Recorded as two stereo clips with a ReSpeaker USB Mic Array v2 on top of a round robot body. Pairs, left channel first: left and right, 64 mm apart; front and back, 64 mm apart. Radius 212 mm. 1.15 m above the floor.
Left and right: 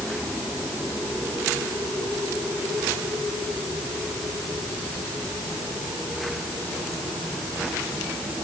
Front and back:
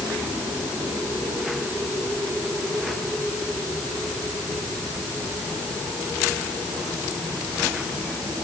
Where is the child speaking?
I don't hear a child speaking.